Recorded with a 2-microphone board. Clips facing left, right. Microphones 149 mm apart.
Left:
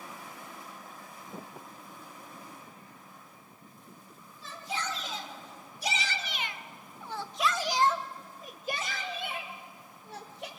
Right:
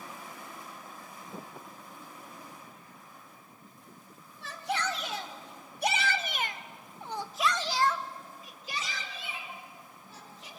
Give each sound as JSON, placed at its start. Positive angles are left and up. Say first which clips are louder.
{"t": 4.4, "sound": "a shout", "louder": "right 4 dB", "side_deg": -75, "distance_m": 3.0}